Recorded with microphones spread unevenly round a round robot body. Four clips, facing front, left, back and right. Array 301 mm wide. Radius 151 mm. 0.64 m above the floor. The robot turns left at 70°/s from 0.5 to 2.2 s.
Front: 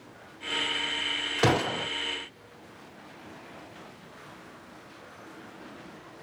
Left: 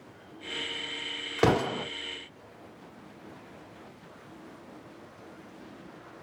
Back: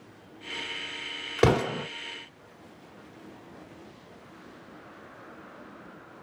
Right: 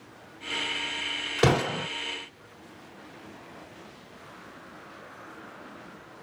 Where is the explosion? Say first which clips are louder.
Right 1 dB, back 2 dB; 165° left, 1.8 m; by 1.9 s 130° left, 1.8 m.